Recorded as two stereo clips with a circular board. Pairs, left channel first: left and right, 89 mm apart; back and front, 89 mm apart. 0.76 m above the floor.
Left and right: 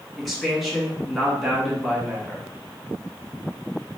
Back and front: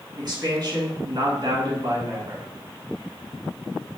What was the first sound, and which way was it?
A man speaking, straight ahead.